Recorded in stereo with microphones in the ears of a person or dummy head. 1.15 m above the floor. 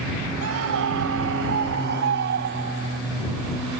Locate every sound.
0.4 s a scream: 70° right (ahead or behind); by 3.0 s 55° right (ahead or behind)